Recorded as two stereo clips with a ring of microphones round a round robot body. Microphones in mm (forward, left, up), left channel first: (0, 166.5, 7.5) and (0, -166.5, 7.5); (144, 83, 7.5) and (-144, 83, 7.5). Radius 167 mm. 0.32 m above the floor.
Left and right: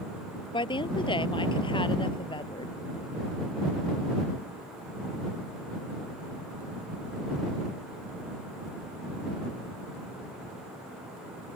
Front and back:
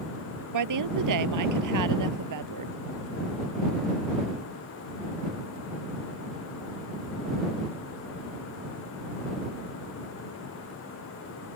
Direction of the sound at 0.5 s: 165° left.